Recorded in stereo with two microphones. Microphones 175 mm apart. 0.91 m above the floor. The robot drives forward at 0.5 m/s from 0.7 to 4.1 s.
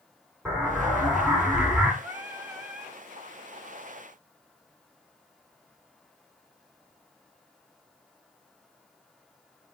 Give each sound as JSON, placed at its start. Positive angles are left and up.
{"t": 0.5, "sound": "an explosion", "side_deg": -5, "distance_m": 2.0}
{"t": 2.0, "sound": "singing", "side_deg": -10, "distance_m": 0.5}